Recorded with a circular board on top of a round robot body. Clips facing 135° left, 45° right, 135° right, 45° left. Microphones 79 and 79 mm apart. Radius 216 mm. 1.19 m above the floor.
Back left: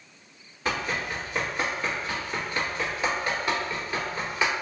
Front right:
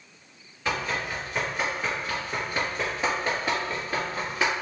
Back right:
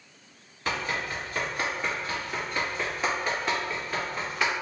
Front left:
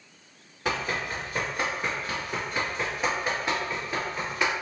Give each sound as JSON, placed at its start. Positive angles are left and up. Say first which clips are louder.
{"t": 0.7, "sound": "running footsteps", "louder": "even, front left 1 dB", "azimuth_deg": 65, "distance_m": 1.4}